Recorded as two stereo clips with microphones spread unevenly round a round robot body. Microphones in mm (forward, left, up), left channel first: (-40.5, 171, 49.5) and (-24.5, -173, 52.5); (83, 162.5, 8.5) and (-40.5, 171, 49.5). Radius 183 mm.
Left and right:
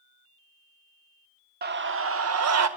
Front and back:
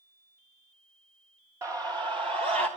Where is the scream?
105° right, 1.3 m; by 2.7 s 120° right, 2 m.